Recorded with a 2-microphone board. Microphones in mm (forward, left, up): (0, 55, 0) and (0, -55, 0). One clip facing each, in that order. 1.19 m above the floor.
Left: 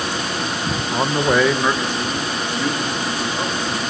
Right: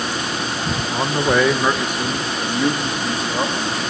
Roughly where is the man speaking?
Centre.